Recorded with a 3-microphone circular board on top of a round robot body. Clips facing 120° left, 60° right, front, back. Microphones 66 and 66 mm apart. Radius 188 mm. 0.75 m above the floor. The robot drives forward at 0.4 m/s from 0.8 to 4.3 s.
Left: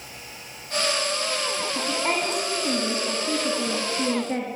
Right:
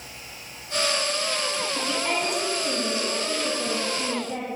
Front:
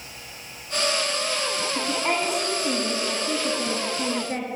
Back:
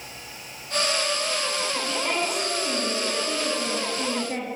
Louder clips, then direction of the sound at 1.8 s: Left 2 dB, front 3 dB; 60° left.